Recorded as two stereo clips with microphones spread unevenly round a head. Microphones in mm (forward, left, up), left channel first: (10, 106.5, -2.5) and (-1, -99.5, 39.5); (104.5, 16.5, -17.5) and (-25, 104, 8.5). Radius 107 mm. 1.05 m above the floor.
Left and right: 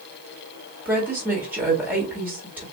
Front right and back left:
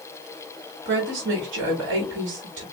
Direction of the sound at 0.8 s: 175° right.